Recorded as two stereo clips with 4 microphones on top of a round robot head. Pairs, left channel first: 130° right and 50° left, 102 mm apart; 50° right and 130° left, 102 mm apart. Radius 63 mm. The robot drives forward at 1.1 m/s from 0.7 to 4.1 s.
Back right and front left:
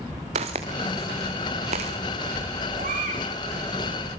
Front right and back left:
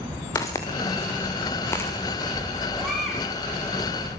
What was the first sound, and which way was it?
Footsteps, 15° left.